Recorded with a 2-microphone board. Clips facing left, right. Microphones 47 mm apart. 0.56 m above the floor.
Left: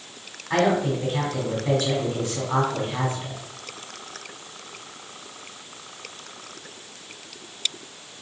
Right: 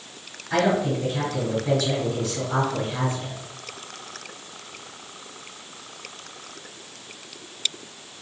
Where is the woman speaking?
30° left (ahead or behind), 1.8 m.